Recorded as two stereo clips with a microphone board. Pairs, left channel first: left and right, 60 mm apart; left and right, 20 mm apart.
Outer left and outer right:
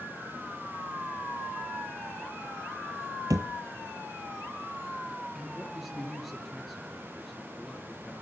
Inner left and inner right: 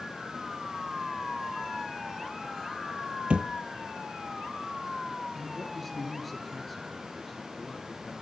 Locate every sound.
3.3 s a thud: 85° right, 0.7 m
5.3 s a man speaking: centre (ahead or behind), 4 m